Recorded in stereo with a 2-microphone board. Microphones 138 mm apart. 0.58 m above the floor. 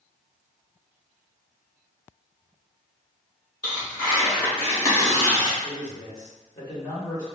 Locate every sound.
3.6 s tearing paper: 30° left (ahead or behind), 1.9 m
5.6 s a man speaking: 25° left (ahead or behind), 1.7 m